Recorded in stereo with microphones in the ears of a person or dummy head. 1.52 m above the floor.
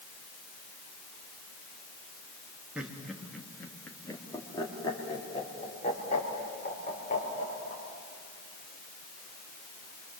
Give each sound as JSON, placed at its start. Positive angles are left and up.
{"t": 2.8, "sound": "laughter", "side_deg": 0, "distance_m": 3.0}